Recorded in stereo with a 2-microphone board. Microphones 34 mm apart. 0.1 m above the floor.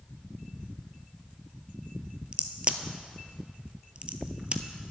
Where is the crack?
35° right (ahead or behind), 0.6 m.